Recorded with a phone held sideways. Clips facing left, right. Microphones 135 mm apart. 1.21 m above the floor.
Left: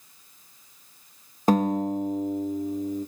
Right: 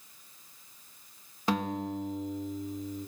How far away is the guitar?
About 1.7 m.